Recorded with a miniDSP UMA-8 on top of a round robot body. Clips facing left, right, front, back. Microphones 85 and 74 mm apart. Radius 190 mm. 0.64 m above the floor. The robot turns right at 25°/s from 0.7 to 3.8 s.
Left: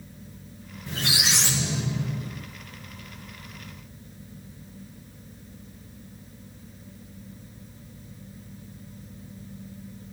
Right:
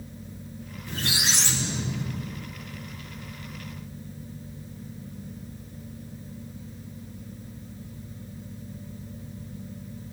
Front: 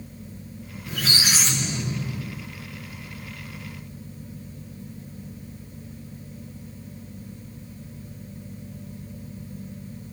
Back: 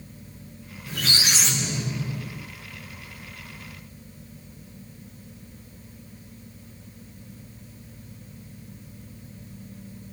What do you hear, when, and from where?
0.9 s a squeak: 75° left, 0.7 m; by 2.5 s 115° left, 0.7 m